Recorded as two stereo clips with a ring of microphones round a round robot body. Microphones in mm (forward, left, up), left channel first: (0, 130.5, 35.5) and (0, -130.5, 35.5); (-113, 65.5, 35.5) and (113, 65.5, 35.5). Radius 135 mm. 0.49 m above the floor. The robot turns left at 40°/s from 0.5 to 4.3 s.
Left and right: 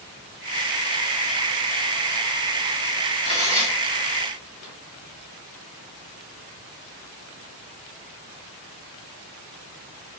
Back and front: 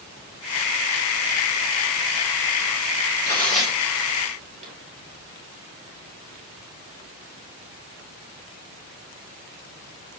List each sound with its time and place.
3.2 s tearing paper: 105° left, 2.0 m; by 4.7 s 60° left, 2.0 m